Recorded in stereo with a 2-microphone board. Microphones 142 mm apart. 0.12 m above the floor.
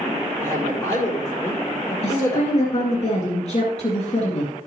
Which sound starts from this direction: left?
A woman speaking, at 2.0 s.